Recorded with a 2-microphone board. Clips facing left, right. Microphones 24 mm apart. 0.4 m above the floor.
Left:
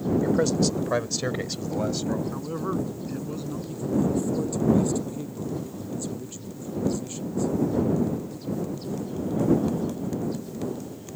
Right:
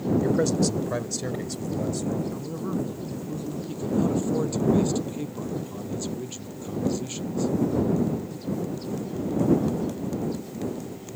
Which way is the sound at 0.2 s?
Centre (ahead or behind).